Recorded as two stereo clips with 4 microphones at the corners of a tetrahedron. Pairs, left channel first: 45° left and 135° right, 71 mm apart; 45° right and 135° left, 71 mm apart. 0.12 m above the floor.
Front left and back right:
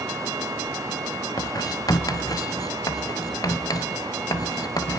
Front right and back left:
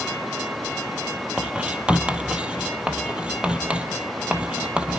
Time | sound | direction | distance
1.4 | writing | 65° left | 1.6 m